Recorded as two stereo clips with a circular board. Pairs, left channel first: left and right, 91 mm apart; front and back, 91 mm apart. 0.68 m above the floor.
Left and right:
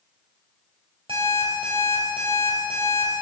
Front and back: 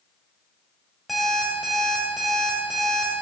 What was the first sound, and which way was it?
An alarm clock, 90° right.